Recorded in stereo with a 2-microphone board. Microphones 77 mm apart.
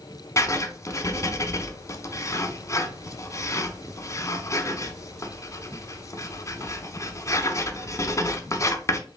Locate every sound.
0.4 s writing: 40° left (ahead or behind), 0.8 m